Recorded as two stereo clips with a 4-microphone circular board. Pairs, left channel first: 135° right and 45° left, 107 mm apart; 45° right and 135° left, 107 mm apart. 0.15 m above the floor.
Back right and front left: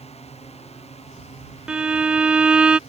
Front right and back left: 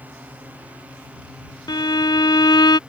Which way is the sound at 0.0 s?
150° right.